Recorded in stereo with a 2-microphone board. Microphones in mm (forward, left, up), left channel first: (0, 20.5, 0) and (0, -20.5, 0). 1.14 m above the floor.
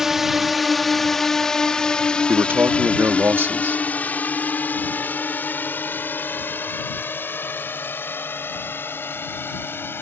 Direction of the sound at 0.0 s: 10° right (ahead or behind).